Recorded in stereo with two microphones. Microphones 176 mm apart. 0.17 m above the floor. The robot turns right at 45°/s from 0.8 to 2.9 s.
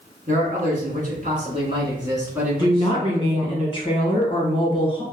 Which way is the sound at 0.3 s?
85° right.